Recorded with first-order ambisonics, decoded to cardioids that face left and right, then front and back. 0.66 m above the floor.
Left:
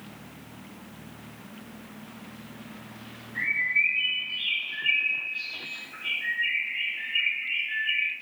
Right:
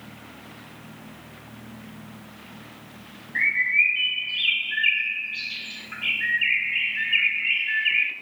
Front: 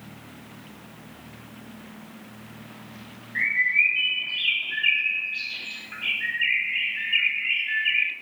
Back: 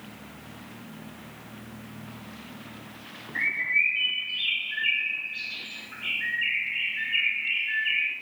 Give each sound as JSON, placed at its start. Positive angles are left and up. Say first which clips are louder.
{"t": 3.4, "sound": "a bird", "louder": "right 4 dB, front 3 dB", "azimuth_deg": -70, "distance_m": 0.6}